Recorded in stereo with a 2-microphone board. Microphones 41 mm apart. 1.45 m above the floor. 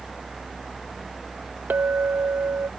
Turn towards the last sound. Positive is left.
turn(degrees=-55)  # may be behind; listen again after turning